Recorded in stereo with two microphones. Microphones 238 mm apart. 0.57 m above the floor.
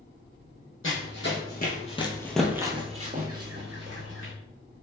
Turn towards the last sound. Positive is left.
turn(degrees=-60)  # may be behind; listen again after turning